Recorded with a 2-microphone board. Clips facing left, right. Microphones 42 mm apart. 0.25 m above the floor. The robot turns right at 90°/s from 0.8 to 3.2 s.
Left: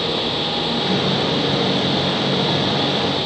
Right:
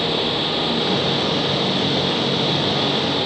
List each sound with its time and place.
Only background noise.